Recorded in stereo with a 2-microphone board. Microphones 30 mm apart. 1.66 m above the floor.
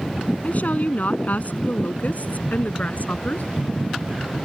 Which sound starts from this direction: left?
A woman speaking, at 0.4 s.